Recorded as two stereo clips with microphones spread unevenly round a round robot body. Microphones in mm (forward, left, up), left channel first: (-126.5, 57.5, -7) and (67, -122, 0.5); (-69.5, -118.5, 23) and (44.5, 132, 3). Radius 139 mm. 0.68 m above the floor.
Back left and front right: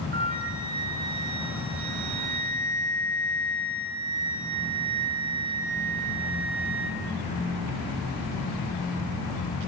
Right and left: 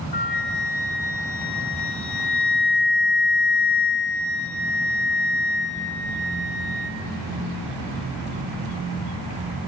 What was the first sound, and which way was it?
A flute, 95° right.